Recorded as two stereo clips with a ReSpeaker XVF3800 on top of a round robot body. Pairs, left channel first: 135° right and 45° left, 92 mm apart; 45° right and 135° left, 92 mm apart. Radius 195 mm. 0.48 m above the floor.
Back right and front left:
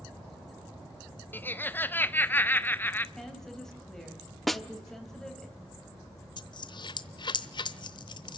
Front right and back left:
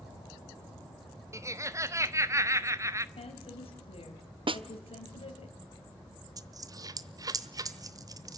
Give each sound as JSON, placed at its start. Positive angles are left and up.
{"t": 1.3, "sound": "laughter", "azimuth_deg": 170, "distance_m": 1.4}
{"t": 3.1, "sound": "a woman speaking", "azimuth_deg": -50, "distance_m": 3.0}
{"t": 4.5, "sound": "a snare drum", "azimuth_deg": 135, "distance_m": 1.1}
{"t": 6.4, "sound": "a dropped coin", "azimuth_deg": -175, "distance_m": 0.9}